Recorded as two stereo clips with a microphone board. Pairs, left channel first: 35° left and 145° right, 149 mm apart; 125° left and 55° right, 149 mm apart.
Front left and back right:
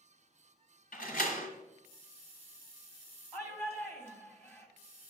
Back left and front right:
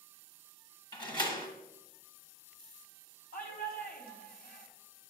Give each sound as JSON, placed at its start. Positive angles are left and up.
{"t": 0.9, "sound": "a door slam", "azimuth_deg": 65, "distance_m": 1.3}
{"t": 3.3, "sound": "a shout", "azimuth_deg": 110, "distance_m": 2.0}